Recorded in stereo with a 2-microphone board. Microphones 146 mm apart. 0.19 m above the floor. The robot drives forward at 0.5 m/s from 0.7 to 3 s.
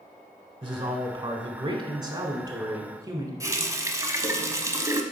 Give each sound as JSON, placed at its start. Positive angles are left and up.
{"t": 0.6, "sound": "a woman speaking", "side_deg": -35, "distance_m": 1.2}
{"t": 3.4, "sound": "a running tap", "side_deg": -20, "distance_m": 0.8}